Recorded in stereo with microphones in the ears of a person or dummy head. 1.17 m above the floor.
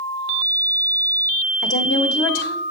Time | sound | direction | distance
1.6 | a woman speaking | 65° left (ahead or behind) | 1.3 m